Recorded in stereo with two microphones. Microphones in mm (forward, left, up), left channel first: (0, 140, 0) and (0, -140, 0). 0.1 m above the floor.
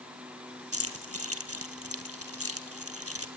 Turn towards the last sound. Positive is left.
turn(degrees=-55)  # may be behind; listen again after turning